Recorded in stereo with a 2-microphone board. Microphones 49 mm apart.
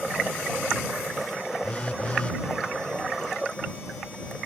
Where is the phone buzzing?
25° left (ahead or behind).